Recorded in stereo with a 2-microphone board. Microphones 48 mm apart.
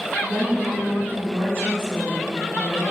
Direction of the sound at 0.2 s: 55° right (ahead or behind).